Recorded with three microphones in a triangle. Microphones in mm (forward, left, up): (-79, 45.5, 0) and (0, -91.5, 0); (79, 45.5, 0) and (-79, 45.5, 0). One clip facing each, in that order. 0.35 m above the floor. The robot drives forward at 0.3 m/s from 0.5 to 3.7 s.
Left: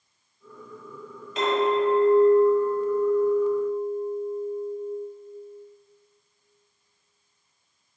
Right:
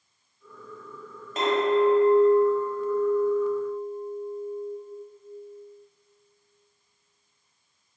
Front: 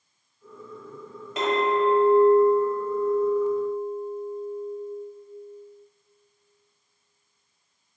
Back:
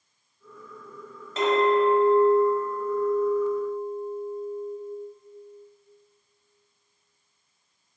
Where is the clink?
70° right, 1.3 m; by 4.8 s 115° right, 1.3 m.